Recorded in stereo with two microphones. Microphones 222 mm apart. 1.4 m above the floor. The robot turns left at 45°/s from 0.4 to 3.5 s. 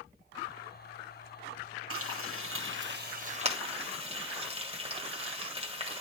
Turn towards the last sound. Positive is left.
turn(degrees=-25)  # may be behind; listen again after turning